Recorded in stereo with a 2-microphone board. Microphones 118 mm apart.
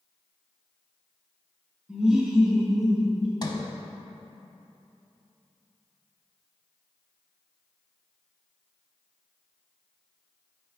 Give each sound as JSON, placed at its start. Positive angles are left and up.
{"t": 1.9, "sound": "laughter", "side_deg": -10, "distance_m": 1.3}
{"t": 3.4, "sound": "a sliding door", "side_deg": 40, "distance_m": 0.7}